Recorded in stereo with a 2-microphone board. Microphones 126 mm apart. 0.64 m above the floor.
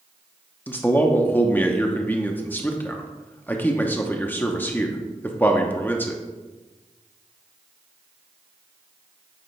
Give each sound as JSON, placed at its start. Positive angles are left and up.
{"t": 0.7, "sound": "a man speaking", "side_deg": 15, "distance_m": 0.7}